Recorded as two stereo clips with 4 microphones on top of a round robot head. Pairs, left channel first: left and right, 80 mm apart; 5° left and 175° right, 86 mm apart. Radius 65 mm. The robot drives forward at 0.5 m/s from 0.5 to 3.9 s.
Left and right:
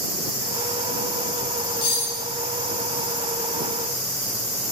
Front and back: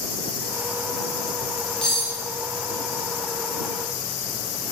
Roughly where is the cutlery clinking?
Left.